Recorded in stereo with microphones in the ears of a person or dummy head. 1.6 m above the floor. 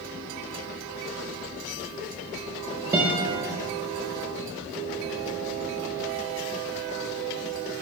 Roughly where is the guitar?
Centre.